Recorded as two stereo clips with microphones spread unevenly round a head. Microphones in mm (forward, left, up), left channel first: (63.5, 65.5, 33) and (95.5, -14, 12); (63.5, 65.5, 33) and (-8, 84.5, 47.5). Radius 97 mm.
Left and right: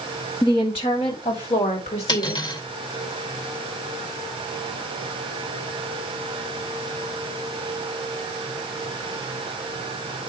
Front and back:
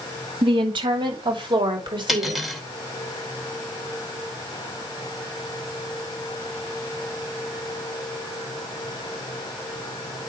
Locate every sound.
0.4 s a woman speaking: 170° left, 2 m; by 2.4 s 145° left, 3.5 m
2.1 s cutlery clinking: 80° left, 2.5 m